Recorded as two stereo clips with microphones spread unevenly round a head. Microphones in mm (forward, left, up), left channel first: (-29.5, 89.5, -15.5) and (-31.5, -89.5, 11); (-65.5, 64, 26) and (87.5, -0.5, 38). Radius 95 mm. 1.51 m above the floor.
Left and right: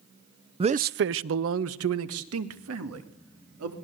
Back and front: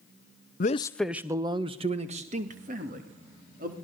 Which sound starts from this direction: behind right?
A man speaking, at 0.6 s.